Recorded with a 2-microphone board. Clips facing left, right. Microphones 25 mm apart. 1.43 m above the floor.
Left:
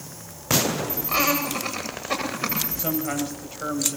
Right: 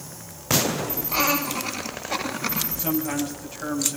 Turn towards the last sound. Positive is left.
turn(degrees=35)  # may be behind; listen again after turning